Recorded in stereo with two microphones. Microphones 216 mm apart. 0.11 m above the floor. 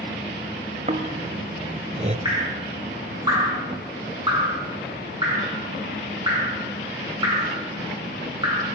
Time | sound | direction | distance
0.9 | snoring | 35° right (ahead or behind) | 0.6 m
2.2 | dripping | 20° right (ahead or behind) | 3.5 m